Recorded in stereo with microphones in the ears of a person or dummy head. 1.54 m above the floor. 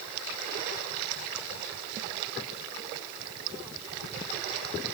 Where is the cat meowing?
No cat meowing in this recording.